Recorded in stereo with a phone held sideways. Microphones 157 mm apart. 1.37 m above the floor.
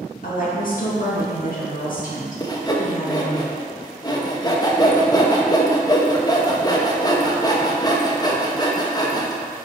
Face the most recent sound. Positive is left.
turn(degrees=25)  # may be behind; listen again after turning